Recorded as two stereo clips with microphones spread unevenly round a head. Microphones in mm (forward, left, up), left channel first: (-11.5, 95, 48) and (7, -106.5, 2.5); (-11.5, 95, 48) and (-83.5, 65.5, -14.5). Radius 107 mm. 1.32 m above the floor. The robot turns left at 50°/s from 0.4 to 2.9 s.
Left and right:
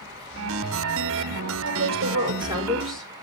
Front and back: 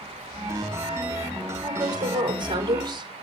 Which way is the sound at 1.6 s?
115° right.